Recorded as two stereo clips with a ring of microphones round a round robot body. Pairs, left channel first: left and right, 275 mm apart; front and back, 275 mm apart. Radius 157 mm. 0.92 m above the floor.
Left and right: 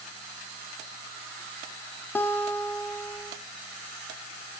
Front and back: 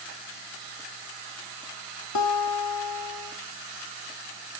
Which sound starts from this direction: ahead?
A guitar, at 2.1 s.